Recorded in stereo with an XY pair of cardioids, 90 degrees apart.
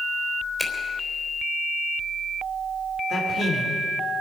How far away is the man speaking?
About 4 m.